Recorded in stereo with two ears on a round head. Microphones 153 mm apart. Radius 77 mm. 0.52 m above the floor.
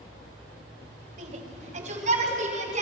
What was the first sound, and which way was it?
A shout, 45° right (ahead or behind).